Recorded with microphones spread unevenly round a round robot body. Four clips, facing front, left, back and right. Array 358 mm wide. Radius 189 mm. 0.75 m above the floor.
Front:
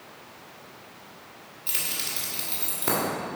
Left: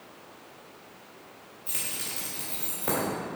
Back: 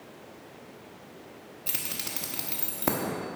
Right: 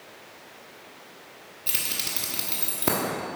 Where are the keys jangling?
140° right, 1.2 m.